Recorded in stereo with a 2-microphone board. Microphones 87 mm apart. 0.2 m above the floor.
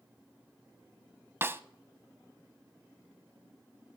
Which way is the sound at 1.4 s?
25° right (ahead or behind).